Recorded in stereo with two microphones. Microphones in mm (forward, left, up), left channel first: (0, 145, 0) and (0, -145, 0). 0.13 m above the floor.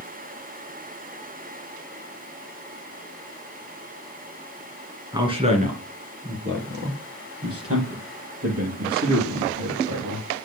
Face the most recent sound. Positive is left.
turn(degrees=-60)  # may be behind; listen again after turning